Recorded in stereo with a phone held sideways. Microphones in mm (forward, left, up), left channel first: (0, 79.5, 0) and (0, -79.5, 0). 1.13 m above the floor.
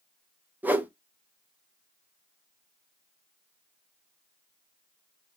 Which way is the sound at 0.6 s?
10° right (ahead or behind).